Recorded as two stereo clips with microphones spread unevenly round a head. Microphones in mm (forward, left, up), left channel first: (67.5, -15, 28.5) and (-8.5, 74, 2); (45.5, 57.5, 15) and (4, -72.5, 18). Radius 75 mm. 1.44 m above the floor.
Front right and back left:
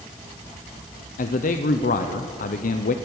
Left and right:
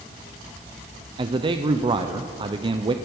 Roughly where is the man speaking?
Ahead right.